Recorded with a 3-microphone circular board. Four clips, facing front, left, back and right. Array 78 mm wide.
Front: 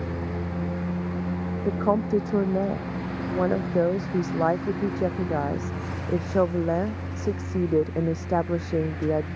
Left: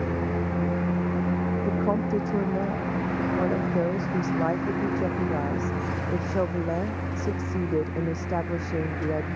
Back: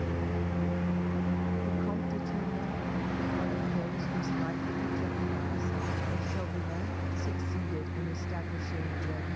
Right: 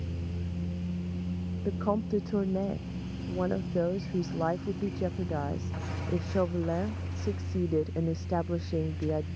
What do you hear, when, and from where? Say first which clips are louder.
0.0 s a lawn mower: left 13 dB, front 2 dB; 85° left; by 9.4 s 90° left
1.6 s a woman speaking: left 2 dB, front 9 dB; 5° left